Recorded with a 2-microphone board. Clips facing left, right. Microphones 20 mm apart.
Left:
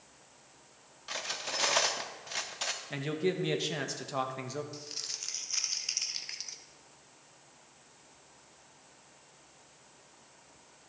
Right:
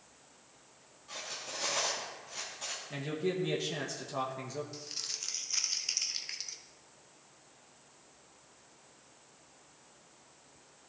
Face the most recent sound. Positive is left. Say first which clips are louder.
# even
turn(degrees=0)  # may be behind; listen again after turning